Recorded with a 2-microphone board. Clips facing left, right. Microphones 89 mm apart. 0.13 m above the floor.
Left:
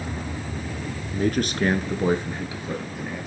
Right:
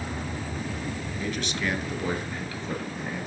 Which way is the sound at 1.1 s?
50° left (ahead or behind).